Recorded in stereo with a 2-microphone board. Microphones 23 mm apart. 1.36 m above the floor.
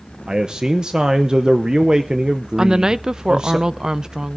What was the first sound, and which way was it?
A man speaking, 35° right (ahead or behind).